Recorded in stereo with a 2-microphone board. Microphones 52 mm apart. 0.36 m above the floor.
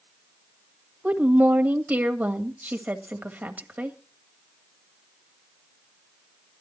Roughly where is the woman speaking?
Right.